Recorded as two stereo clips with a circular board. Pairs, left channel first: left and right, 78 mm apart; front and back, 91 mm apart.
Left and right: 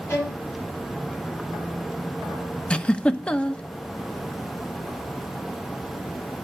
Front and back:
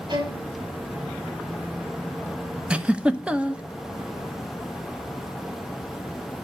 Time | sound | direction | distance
0.1 | a violin | 150° left | 5.5 m
2.7 | a giggle | 130° left | 0.9 m